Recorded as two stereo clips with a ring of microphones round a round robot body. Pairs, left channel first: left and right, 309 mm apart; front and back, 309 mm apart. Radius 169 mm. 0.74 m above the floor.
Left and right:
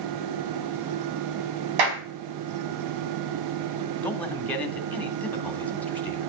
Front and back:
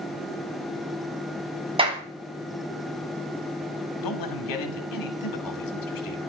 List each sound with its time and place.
1.8 s a clap: 105° right, 4.5 m
4.0 s a man speaking: 5° left, 3 m